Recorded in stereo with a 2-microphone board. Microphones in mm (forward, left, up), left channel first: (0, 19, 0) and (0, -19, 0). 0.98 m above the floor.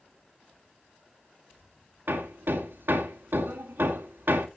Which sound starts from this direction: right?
Hammering, at 2.1 s.